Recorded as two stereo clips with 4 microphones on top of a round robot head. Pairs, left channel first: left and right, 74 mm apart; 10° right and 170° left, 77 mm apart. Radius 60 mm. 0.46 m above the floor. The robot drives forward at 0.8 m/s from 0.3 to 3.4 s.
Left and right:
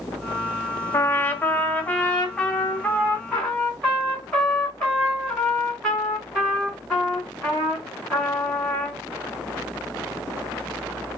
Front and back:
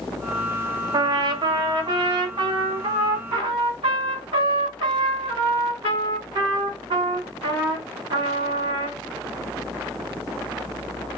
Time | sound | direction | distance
0.9 | a trumpet | 145° left | 0.9 m